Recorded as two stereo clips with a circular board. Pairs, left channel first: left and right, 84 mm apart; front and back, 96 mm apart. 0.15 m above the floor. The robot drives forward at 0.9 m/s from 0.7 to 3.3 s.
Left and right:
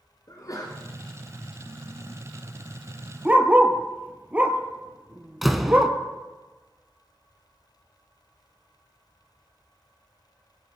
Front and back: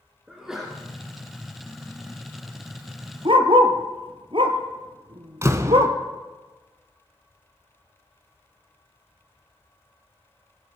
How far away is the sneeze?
About 2.5 m.